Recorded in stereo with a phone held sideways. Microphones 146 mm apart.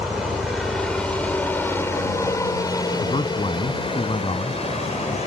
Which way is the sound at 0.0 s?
Centre (ahead or behind).